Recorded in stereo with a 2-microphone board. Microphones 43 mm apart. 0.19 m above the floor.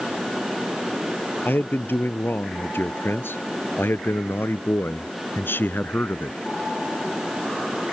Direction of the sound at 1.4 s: 55° left (ahead or behind).